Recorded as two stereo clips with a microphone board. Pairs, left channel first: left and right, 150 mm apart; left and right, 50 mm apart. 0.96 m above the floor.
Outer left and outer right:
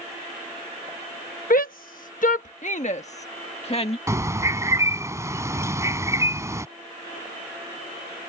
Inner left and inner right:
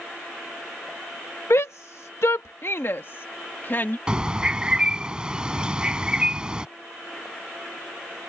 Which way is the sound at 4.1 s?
20° right (ahead or behind).